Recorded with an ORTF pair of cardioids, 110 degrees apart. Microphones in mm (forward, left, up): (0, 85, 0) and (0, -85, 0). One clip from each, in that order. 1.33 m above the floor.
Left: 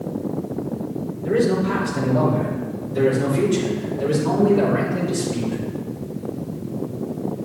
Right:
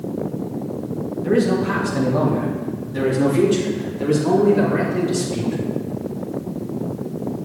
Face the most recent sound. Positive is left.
turn(degrees=-30)